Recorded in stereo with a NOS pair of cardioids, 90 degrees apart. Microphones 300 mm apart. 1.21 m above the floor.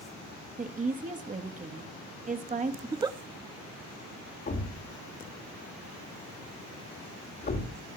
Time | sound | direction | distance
0.6 | a woman speaking | 25° right | 1.7 m
2.8 | a giggle | 15° right | 0.6 m
4.5 | a thud | 35° left | 1.9 m